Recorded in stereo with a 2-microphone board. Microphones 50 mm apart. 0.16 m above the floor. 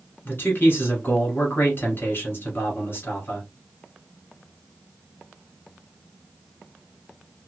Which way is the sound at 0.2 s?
45° left (ahead or behind).